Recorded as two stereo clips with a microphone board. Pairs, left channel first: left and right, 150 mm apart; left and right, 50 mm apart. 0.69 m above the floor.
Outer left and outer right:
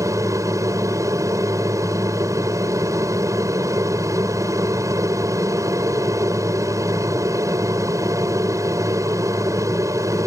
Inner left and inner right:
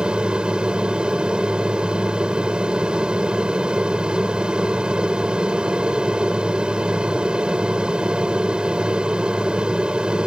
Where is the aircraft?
20° right (ahead or behind).